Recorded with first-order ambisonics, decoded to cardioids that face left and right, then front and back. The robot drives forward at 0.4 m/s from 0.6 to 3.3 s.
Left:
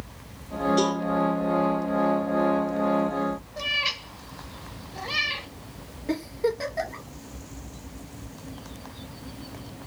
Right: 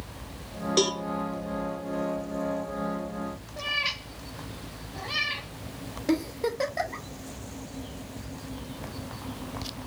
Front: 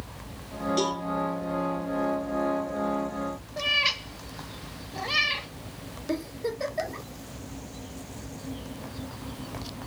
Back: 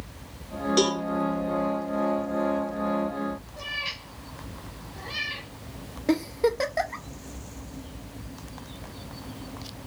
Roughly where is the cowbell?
Behind right.